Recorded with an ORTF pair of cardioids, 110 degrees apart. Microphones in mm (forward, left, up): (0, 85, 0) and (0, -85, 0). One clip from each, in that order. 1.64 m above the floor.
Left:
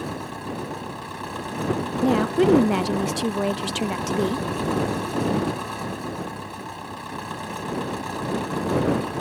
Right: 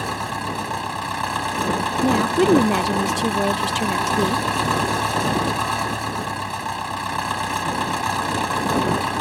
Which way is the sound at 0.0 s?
55° right.